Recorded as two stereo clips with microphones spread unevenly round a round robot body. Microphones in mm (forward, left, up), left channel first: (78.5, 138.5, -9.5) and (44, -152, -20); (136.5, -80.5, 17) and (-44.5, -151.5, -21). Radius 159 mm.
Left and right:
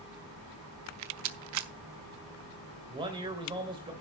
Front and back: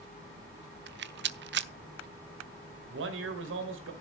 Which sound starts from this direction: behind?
A man speaking, at 2.9 s.